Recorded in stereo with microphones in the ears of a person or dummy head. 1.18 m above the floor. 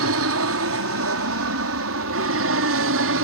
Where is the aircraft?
65° right (ahead or behind); by 3.2 s 60° right (ahead or behind).